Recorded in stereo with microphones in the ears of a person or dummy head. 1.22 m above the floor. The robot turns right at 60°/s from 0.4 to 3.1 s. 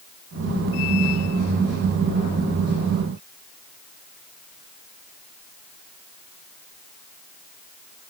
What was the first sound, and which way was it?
Only background noise.